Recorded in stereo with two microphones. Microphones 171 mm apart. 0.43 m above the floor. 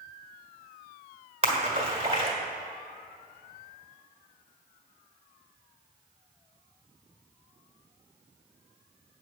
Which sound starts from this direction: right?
A splash, at 1.4 s.